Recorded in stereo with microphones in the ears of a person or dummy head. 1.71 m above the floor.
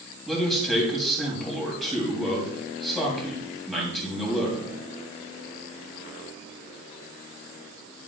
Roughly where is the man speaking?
Centre.